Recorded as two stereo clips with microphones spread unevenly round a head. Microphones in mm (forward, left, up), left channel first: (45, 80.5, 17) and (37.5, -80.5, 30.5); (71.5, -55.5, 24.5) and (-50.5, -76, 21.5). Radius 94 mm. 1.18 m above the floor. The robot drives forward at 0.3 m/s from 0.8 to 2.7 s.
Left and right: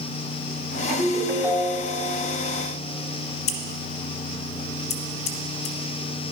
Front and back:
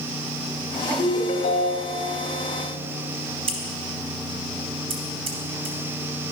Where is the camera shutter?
No camera shutter in this recording.